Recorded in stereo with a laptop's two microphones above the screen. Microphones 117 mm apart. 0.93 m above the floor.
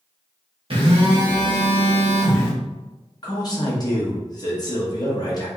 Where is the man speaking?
35° left (ahead or behind), 0.8 m.